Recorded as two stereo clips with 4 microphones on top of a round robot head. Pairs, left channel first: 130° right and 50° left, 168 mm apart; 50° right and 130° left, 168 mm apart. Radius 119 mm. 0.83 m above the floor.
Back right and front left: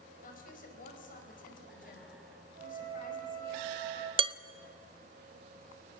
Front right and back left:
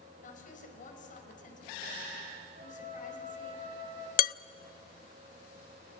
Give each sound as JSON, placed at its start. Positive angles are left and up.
{"t": 0.2, "sound": "a woman speaking", "azimuth_deg": -90, "distance_m": 5.0}
{"t": 2.5, "sound": "a flute", "azimuth_deg": 90, "distance_m": 9.0}
{"t": 4.2, "sound": "dishes clattering", "azimuth_deg": -15, "distance_m": 0.5}